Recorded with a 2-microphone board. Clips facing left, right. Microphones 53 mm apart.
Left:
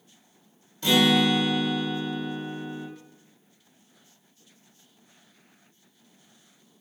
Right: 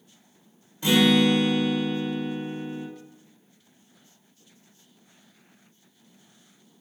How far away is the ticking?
No ticking in this recording.